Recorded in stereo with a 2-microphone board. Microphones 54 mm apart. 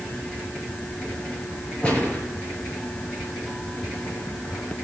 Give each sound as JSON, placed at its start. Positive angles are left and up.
{"t": 1.8, "sound": "a gunshot", "side_deg": 25, "distance_m": 4.5}